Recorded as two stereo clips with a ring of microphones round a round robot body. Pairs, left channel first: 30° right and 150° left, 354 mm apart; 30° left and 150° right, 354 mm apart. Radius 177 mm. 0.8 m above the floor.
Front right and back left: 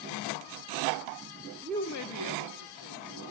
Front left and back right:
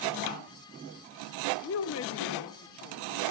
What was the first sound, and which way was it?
A woman speaking, 80° left.